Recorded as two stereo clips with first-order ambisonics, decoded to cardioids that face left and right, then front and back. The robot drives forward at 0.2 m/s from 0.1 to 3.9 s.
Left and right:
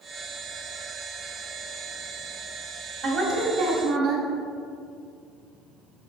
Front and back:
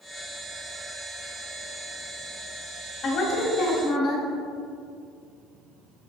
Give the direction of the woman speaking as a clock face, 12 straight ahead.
2 o'clock.